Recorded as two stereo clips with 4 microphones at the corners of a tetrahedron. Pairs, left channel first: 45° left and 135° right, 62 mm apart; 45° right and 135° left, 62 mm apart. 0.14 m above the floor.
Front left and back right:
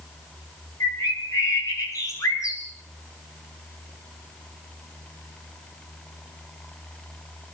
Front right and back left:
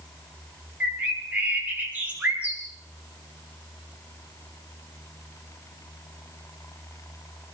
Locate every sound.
0.8 s a bird: 70° left, 7.5 m